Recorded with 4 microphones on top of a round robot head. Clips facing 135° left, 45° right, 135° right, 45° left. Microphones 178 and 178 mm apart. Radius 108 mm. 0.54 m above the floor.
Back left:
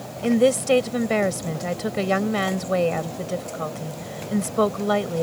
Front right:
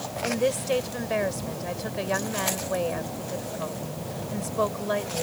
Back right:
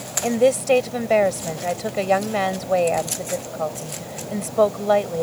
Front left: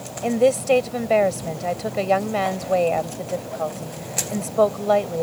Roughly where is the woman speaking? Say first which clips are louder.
Back left 8 dB, even; behind left.